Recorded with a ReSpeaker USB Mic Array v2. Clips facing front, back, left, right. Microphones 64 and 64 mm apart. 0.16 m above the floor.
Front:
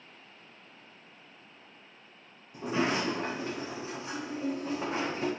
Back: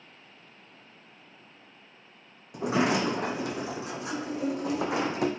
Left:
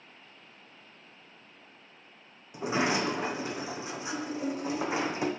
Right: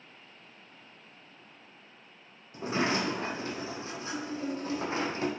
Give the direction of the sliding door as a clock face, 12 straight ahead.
7 o'clock.